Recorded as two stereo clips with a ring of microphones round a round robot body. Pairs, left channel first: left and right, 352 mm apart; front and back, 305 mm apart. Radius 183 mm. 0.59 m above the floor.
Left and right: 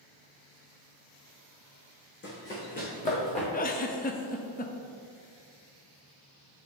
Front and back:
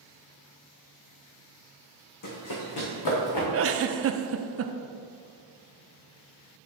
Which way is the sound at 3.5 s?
150° left.